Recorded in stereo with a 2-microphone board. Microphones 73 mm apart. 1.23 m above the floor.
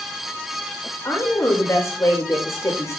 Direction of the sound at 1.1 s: 40° left (ahead or behind).